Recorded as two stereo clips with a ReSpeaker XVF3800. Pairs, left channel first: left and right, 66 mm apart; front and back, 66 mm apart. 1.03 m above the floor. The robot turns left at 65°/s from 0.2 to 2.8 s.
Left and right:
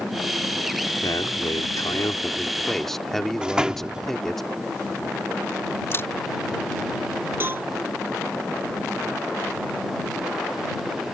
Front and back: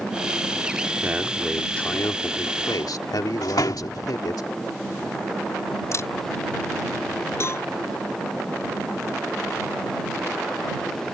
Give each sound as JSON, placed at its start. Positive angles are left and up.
{"t": 1.0, "sound": "a man speaking", "azimuth_deg": 120}
{"t": 3.4, "sound": "a door slam", "azimuth_deg": -15}
{"t": 5.9, "sound": "a camera shutter", "azimuth_deg": 40}
{"t": 7.4, "sound": "a cowbell", "azimuth_deg": -40}